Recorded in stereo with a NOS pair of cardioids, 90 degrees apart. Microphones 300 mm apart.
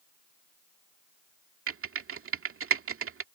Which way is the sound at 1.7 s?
45° right.